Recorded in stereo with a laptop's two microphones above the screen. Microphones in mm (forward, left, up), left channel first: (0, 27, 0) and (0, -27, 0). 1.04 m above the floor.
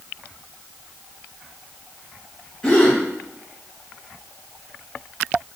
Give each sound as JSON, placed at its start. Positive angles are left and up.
{"t": 2.6, "sound": "a gasp", "side_deg": 15, "distance_m": 1.2}